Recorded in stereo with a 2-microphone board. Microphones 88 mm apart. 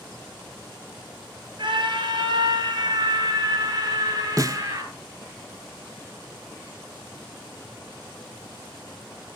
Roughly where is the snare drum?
Right.